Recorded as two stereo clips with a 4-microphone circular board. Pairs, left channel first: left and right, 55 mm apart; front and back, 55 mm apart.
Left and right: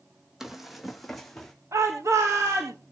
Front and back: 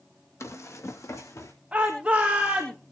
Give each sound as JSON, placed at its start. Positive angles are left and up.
{"t": 0.4, "sound": "running footsteps", "azimuth_deg": -5, "distance_m": 2.0}
{"t": 1.7, "sound": "a shout", "azimuth_deg": -110, "distance_m": 3.0}